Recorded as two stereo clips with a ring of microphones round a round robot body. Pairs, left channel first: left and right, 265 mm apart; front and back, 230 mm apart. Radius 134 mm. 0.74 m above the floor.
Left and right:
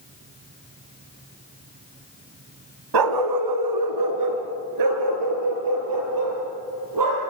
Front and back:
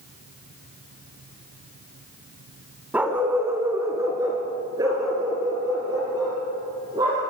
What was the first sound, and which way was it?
A dog barking, 95° right.